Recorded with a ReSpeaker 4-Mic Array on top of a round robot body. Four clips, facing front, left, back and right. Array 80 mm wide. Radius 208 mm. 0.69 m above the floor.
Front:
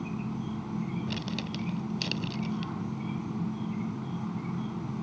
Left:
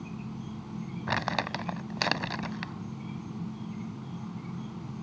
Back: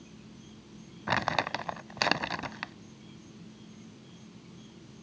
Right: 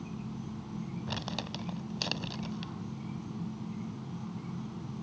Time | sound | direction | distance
0.0 | an insect | 5° left | ?
1.1 | crumpling | 140° left | ?